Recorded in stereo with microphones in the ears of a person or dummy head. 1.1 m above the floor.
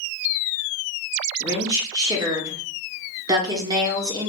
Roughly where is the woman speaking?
Right.